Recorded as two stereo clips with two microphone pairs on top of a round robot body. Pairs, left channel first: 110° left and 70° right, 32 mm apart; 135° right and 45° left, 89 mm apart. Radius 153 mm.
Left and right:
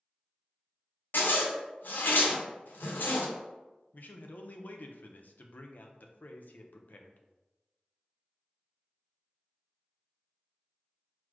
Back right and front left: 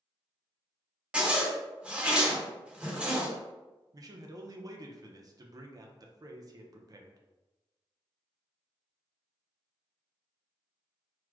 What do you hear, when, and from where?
1.1 s a zipper: 125° left, 0.6 m
3.9 s a man speaking: 100° left, 0.5 m